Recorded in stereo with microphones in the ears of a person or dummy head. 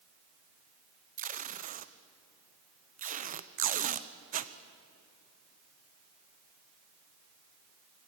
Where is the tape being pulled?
45° right (ahead or behind), 0.9 m.